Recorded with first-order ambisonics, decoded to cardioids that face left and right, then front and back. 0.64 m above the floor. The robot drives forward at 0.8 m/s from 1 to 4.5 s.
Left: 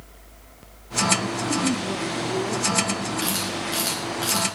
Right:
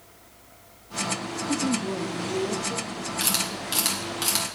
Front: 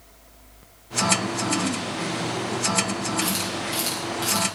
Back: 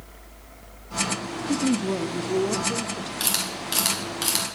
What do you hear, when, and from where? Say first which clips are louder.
1.5 s a woman speaking: even, back 1 dB; 170° right, 0.7 m; by 3.1 s straight behind, 1.8 m
3.2 s a camera shutter: left 1 dB, front 1 dB; 145° right, 5 m; by 4.5 s 150° right, 6 m